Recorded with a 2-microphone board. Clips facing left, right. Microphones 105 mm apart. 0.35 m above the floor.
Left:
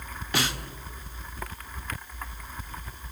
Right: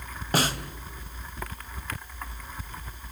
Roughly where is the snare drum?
Right.